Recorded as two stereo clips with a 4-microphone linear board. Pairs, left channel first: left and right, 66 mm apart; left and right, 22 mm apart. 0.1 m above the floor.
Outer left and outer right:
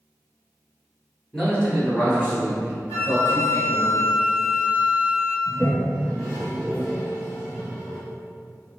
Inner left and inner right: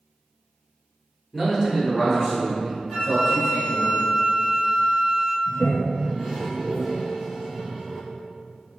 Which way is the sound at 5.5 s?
Centre (ahead or behind).